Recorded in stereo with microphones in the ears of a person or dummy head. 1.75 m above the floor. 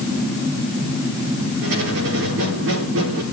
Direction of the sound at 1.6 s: 75° right (ahead or behind).